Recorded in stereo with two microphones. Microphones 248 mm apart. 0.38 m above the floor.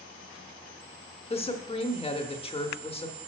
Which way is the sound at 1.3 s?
25° left (ahead or behind).